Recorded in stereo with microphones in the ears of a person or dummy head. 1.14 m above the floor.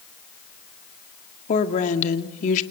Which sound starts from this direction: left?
A woman speaking, at 1.5 s.